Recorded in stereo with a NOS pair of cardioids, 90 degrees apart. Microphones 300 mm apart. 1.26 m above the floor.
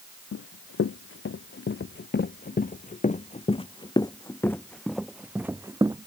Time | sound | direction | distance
0.3 | running footsteps | 50° left | ?